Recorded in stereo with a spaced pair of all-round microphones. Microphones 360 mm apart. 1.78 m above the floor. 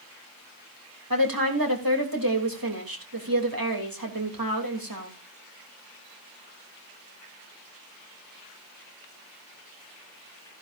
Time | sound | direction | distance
1.1 | a woman speaking | 70° right (ahead or behind) | 3 m